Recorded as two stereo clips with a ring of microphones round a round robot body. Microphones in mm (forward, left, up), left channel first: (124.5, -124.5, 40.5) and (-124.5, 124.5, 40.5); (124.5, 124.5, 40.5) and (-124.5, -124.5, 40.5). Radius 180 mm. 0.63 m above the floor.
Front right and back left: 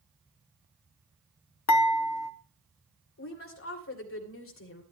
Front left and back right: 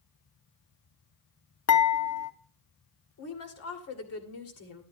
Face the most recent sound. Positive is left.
turn(degrees=5)